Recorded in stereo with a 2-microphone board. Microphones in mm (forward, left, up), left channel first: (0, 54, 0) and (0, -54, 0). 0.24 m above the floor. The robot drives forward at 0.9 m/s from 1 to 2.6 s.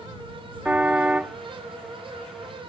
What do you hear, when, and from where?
0.7 s a car horn: 10° right (ahead or behind)